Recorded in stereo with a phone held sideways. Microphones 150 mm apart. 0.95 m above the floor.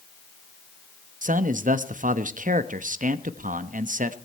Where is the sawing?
No sawing in this recording.